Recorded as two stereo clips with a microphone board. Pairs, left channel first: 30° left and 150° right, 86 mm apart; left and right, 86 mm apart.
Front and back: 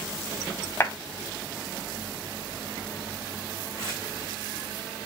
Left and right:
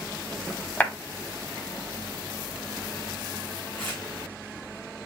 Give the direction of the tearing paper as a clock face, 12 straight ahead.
7 o'clock.